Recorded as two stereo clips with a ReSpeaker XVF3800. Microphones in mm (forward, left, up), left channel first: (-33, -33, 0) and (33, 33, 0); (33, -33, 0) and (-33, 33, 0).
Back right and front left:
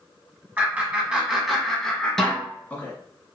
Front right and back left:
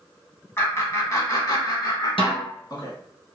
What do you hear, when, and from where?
0.6 s laughter: 10° right, 1.3 m; by 2.9 s 70° right, 1.7 m
2.2 s a snare drum: 50° right, 1.3 m